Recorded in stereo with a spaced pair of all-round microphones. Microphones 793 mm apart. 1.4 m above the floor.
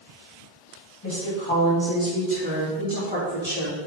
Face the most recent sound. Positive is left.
turn(degrees=-50)  # may be behind; listen again after turning